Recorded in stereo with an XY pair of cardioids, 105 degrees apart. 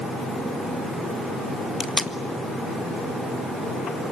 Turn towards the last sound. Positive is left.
turn(degrees=30)